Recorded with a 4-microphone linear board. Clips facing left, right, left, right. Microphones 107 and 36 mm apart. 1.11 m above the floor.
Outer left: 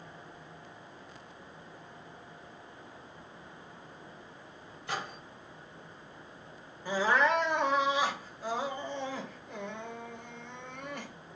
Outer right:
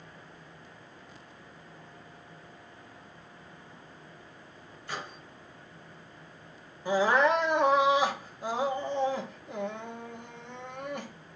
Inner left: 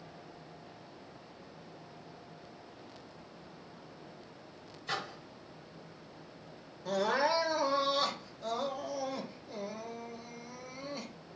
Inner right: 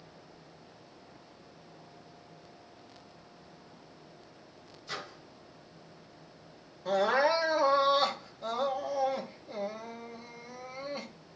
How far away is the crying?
About 2 m.